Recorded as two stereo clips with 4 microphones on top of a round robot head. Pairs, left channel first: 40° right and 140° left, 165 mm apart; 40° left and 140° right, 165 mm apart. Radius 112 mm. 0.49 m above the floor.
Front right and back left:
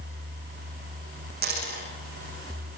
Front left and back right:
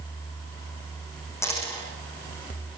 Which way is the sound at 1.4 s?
110° left.